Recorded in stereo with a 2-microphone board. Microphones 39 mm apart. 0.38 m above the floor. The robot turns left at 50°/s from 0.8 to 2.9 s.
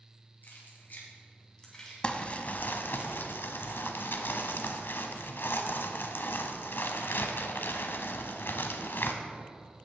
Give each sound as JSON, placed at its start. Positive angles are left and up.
{"t": 0.4, "sound": "keys jangling", "side_deg": 60, "distance_m": 2.0}
{"t": 2.0, "sound": "crumpling", "azimuth_deg": 155, "distance_m": 0.8}